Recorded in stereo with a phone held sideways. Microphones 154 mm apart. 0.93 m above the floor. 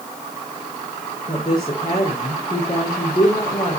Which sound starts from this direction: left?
A woman speaking, at 1.3 s.